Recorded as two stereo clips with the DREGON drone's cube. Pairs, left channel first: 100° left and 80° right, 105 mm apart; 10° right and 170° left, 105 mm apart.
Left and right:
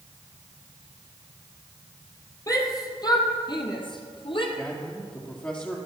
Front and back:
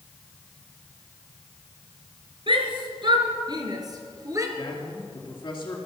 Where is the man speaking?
35° left, 2.5 m.